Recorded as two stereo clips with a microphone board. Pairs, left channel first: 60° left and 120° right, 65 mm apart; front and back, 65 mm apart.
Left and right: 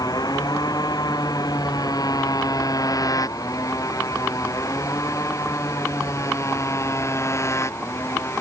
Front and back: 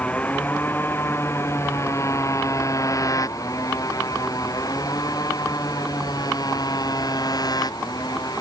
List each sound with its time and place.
0.0 s a motorcycle: 70° left; by 8.4 s 15° left